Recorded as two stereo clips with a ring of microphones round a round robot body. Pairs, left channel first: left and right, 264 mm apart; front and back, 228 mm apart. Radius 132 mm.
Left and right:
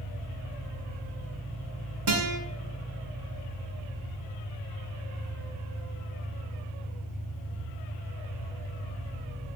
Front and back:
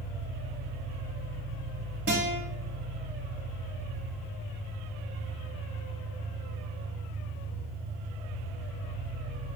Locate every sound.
0.0 s an engine running: 5° left, 3.5 m
2.1 s a guitar: 125° right, 1.8 m